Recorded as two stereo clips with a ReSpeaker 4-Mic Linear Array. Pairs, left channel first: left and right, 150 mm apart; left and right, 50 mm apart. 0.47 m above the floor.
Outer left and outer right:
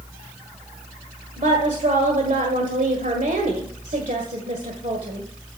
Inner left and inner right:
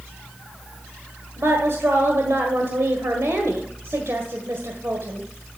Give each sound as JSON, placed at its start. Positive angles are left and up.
{"t": 1.4, "sound": "a woman speaking", "side_deg": -60, "distance_m": 1.7}